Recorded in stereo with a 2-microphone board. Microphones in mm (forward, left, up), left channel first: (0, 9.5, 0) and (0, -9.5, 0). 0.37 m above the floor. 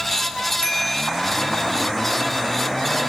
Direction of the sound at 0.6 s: 30° left (ahead or behind).